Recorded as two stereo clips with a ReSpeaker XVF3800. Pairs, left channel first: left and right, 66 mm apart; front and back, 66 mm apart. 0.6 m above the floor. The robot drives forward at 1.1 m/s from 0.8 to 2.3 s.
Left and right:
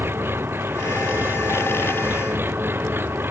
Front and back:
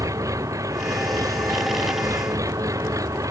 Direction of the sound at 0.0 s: 145° right.